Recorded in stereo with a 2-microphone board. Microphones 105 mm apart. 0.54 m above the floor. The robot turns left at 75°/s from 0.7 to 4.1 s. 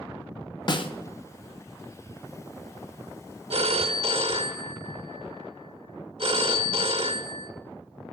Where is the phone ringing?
70° right, 0.9 m; by 7.5 s 115° right, 0.9 m.